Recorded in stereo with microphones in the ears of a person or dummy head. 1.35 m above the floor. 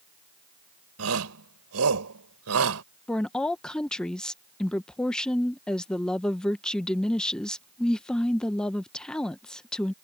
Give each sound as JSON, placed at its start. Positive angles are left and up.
{"t": 1.0, "sound": "a shout", "side_deg": -80}
{"t": 3.1, "sound": "a woman speaking", "side_deg": 5}